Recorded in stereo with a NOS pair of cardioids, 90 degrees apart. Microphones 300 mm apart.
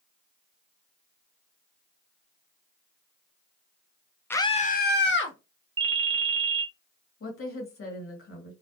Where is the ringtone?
15° right, 0.6 m.